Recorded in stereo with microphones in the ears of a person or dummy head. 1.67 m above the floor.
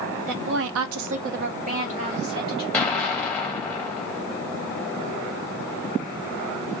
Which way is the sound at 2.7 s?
5° left (ahead or behind).